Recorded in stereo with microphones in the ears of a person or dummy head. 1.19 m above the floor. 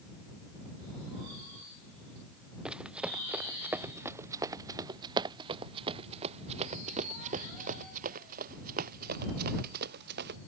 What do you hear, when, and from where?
2.6 s running footsteps: centre (ahead or behind); by 10.4 s 55° right (ahead or behind)